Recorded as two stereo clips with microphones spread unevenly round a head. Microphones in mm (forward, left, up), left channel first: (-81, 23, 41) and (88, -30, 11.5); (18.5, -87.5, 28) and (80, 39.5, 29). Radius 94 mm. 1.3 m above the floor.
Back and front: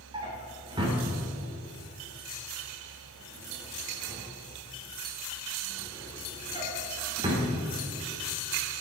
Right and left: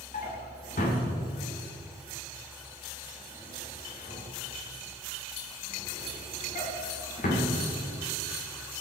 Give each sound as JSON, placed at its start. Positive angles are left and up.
{"t": 0.1, "sound": "a drawer", "azimuth_deg": -85, "distance_m": 2.5}